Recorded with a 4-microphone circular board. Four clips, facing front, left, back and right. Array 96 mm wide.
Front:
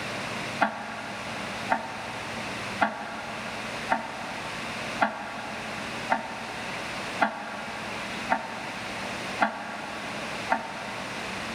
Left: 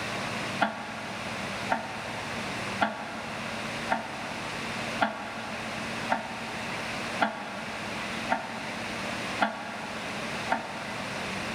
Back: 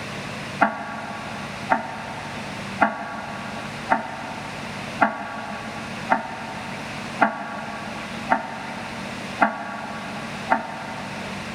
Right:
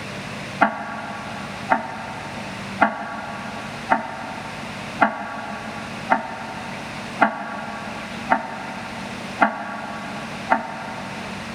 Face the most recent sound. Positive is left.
turn(degrees=-120)